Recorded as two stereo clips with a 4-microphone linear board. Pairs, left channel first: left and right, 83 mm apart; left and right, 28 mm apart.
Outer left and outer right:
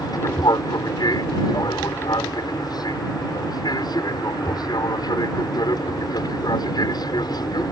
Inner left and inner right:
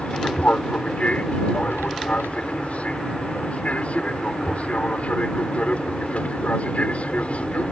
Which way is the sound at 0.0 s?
55° left (ahead or behind).